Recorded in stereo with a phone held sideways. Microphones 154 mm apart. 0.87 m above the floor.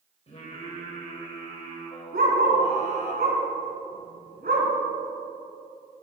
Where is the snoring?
No snoring in this recording.